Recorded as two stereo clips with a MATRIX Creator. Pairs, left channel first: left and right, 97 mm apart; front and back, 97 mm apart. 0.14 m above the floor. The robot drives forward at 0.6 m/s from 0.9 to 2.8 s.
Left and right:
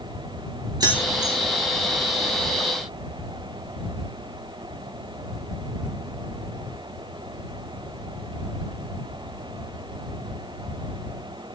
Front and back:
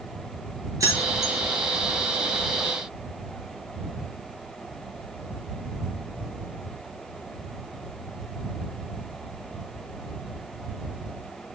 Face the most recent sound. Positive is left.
turn(degrees=-150)